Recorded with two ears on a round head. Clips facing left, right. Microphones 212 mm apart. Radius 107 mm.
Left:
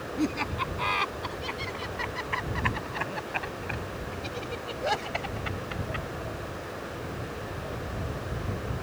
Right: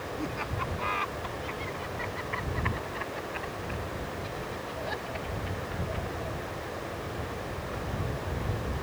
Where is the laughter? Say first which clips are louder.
Left 9 dB; 50° left (ahead or behind); by 6.1 s 80° left.